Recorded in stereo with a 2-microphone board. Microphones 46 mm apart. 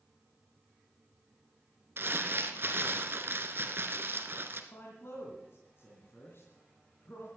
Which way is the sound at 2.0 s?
50° right (ahead or behind).